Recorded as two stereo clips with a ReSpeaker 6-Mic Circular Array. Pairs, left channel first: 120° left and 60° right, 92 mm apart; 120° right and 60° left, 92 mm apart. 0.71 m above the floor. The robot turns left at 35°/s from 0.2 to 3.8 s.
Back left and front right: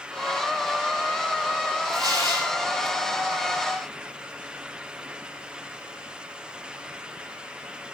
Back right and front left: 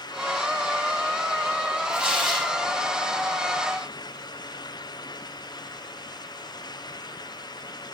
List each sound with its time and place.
1.9 s tearing paper: 15° right, 4.5 m; by 2.5 s 40° right, 4.5 m